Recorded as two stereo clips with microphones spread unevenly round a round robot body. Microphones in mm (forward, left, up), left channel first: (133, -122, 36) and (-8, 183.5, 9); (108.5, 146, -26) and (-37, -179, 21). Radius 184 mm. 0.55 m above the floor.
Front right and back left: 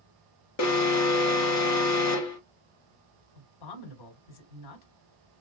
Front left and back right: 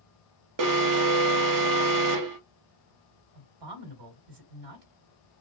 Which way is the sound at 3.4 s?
80° right.